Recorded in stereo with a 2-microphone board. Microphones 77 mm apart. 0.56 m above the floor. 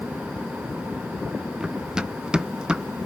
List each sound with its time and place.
1.6 s running footsteps: 10° right (ahead or behind)